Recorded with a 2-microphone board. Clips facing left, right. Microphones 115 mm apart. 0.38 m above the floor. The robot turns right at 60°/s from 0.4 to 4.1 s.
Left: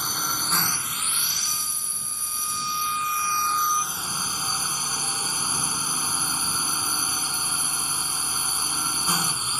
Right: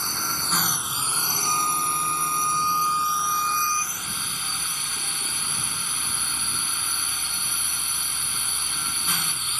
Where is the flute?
125° right; by 4.0 s 30° left.